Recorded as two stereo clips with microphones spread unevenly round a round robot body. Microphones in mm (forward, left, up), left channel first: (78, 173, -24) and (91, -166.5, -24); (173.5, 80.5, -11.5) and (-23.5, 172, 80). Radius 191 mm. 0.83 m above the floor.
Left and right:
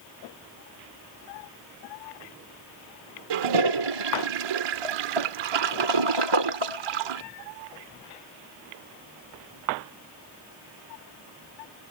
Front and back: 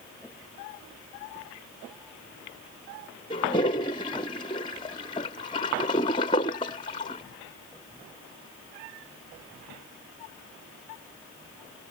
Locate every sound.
3.3 s a toilet flushing: 105° right